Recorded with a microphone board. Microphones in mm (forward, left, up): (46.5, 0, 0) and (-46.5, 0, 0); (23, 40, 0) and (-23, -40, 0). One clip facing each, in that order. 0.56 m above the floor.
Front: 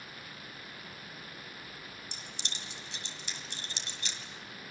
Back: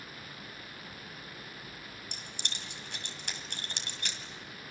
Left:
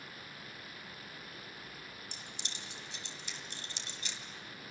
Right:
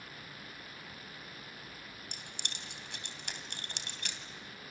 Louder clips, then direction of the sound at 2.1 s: Back 1 dB, right 1 dB; 150° right.